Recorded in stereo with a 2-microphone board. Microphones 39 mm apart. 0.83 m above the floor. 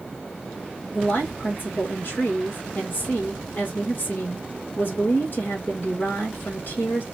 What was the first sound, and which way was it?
A woman speaking, 55° left (ahead or behind).